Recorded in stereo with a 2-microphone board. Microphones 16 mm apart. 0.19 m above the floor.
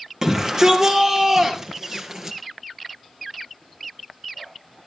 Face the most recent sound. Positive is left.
turn(degrees=-30)  # may be behind; listen again after turning